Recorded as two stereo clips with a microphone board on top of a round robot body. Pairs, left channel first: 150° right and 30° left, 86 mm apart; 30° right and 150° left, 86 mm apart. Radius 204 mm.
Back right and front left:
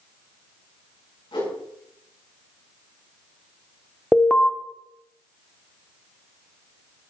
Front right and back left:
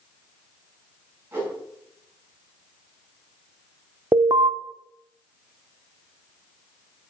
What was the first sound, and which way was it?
A whoosh, 145° right.